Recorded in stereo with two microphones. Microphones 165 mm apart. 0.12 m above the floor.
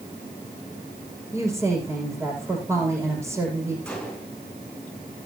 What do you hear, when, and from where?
1.3 s a woman speaking: 20° right (ahead or behind), 7 m
3.9 s a gunshot: 5° left (ahead or behind), 8.5 m